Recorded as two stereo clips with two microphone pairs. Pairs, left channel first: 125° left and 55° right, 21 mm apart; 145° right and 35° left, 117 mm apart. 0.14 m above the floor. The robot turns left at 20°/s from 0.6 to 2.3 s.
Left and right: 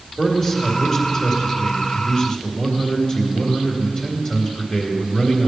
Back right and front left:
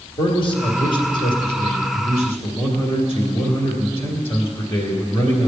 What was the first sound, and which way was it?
A man speaking, 120° right.